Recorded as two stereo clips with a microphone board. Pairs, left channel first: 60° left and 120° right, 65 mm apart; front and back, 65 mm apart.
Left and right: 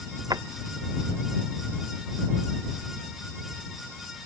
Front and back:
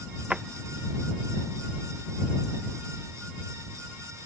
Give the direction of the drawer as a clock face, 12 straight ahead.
4 o'clock.